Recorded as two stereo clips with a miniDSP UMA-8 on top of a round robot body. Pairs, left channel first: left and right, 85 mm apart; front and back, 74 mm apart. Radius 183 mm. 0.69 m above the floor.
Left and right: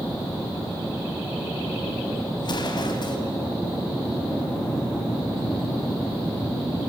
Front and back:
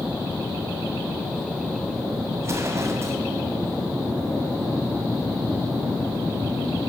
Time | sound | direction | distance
2.4 | an explosion | 125° left | 2 m